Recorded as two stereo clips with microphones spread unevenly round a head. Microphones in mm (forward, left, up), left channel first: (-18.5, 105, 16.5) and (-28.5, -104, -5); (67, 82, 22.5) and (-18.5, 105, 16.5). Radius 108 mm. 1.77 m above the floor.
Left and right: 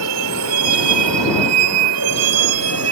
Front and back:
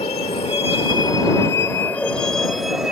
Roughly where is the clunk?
I don't hear a clunk.